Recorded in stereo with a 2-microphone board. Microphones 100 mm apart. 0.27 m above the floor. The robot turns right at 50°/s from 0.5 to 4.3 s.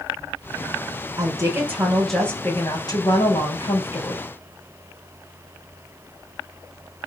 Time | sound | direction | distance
1.2 | a woman speaking | 45° right | 5 m